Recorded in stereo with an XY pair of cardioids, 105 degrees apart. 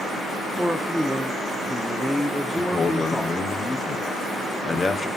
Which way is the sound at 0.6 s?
Straight ahead.